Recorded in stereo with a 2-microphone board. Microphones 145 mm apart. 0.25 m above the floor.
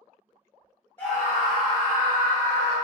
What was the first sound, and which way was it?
A scream, 15° left (ahead or behind).